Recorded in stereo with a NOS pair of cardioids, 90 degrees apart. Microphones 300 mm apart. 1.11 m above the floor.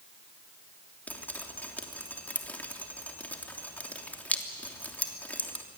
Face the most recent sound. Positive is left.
turn(degrees=5)